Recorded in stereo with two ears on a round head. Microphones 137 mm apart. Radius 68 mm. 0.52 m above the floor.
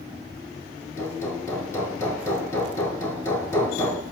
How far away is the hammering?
About 6.5 m.